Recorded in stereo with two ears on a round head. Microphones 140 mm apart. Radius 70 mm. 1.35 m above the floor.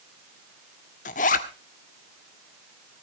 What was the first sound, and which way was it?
A zipper, 55° left (ahead or behind).